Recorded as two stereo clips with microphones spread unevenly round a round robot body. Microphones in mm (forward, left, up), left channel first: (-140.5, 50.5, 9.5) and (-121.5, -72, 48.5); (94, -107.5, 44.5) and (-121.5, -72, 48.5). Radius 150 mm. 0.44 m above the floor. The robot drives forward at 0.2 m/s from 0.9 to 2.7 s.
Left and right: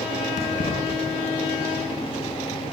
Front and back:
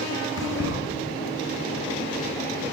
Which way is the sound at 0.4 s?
95° left.